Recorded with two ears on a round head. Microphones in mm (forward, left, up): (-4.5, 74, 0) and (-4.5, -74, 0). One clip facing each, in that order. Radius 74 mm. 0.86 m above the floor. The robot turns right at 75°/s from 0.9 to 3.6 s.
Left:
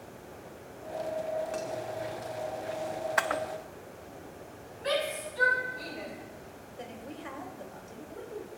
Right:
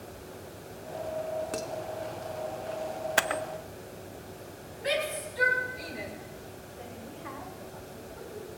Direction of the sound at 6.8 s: 35° left (ahead or behind).